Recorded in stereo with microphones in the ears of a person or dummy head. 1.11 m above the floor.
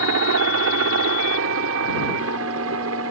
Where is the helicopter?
65° right (ahead or behind); by 3.1 s 70° right (ahead or behind).